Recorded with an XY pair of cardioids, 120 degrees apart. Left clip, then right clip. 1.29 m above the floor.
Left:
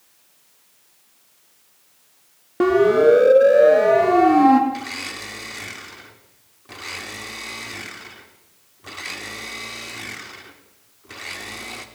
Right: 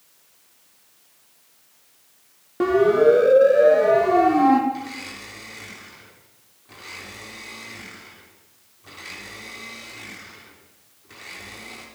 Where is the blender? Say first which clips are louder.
Left 3 dB; 45° left, 3 m.